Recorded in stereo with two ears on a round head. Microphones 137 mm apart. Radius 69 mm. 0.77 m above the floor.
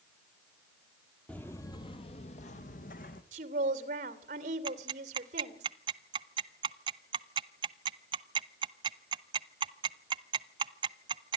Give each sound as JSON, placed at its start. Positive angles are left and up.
{"t": 1.3, "sound": "footsteps", "side_deg": 10, "distance_m": 1.3}
{"t": 3.3, "sound": "a woman speaking", "side_deg": -55, "distance_m": 2.5}
{"t": 4.7, "sound": "ticking", "side_deg": -30, "distance_m": 0.6}